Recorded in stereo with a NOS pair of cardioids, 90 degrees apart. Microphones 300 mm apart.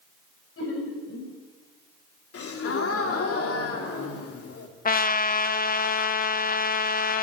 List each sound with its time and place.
0.6 s laughter: 50° left, 10 m
2.3 s a gasp: 55° left, 4 m
4.8 s a trumpet: 30° left, 1.5 m